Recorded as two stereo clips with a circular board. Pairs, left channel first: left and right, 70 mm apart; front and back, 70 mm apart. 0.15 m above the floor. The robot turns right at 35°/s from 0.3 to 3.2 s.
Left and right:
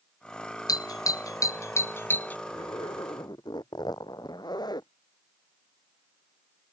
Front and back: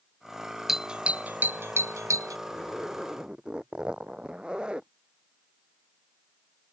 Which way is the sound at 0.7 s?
95° left.